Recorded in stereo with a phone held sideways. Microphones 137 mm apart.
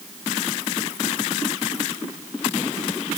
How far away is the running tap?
No running tap in this recording.